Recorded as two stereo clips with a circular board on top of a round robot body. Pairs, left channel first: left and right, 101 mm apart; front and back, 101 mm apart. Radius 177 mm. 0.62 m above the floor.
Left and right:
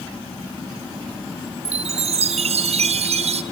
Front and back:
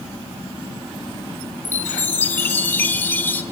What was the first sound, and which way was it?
A chime, 75° right.